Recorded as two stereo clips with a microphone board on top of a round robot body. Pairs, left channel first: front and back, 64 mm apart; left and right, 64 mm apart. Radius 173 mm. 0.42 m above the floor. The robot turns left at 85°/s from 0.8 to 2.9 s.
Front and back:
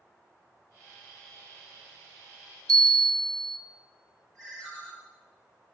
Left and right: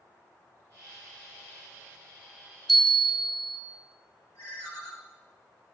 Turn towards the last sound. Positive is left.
turn(degrees=75)